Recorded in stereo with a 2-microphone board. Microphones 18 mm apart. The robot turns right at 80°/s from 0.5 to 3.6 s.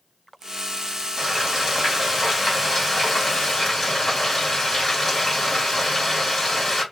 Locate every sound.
1.2 s frying: 100° right, 1.6 m; by 6.8 s 95° left, 1.6 m